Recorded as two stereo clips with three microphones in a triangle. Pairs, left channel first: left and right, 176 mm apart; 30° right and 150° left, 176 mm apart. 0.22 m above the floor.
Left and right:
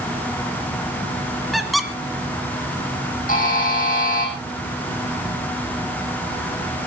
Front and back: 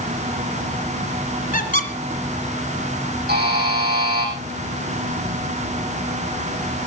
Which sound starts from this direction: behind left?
A buzzer, at 3.3 s.